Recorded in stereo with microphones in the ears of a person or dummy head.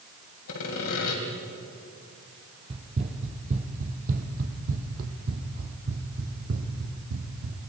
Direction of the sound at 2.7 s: 35° right (ahead or behind).